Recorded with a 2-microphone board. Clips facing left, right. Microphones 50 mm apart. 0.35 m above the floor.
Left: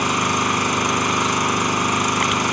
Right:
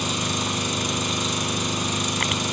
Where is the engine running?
45° left (ahead or behind), 1.7 m.